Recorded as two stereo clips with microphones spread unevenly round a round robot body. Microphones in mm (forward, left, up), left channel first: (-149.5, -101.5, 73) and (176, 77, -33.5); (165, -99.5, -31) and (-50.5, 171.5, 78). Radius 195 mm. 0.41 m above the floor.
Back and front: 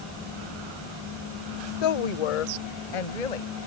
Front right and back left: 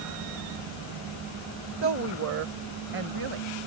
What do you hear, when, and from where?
1.8 s a woman speaking: 170° right; by 3.5 s 165° right